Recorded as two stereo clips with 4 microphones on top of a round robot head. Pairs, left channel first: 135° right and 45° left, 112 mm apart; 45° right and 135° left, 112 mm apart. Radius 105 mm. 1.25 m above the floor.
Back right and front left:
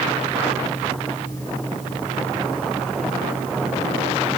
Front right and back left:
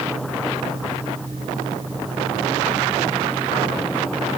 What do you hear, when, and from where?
Only background noise.